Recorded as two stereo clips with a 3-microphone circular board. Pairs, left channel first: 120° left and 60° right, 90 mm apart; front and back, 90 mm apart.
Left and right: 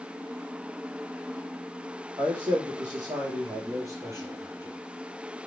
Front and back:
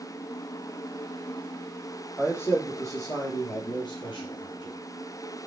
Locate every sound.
2.2 s a man speaking: 60° right, 3.5 m; by 4.8 s 5° left, 4.5 m